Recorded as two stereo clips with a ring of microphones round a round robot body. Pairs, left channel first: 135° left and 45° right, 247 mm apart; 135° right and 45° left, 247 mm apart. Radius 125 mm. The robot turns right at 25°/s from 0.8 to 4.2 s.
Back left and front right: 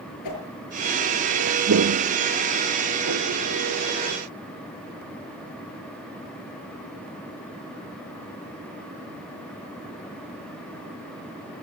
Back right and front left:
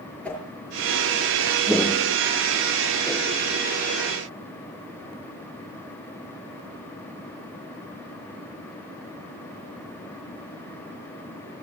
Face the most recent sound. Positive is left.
turn(degrees=-25)